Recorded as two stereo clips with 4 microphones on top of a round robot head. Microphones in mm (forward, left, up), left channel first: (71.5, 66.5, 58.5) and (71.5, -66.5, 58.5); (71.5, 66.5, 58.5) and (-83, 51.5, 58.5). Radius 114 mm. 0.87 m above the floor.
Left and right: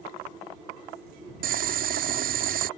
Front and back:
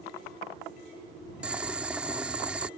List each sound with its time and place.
1.4 s boiling: 90° right